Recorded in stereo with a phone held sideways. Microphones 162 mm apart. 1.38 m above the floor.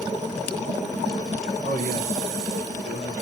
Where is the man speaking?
55° right (ahead or behind), 1.2 m; by 3.1 s 85° right, 1.2 m.